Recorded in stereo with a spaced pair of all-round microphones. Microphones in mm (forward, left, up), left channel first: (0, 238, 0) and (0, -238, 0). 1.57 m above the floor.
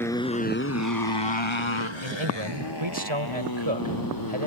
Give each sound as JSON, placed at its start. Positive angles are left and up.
{"t": 0.0, "sound": "a motorcycle", "side_deg": 5}
{"t": 2.0, "sound": "a man speaking", "side_deg": -85}